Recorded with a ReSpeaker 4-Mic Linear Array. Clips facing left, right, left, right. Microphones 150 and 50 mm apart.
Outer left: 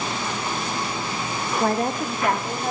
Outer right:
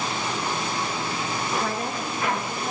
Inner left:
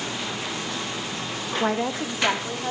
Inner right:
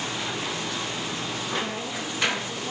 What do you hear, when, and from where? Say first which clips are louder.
1.6 s a woman speaking: outer left 6 dB, inner left 7 dB; 50° left (ahead or behind), 0.8 m; by 2.7 s 55° left (ahead or behind), 2 m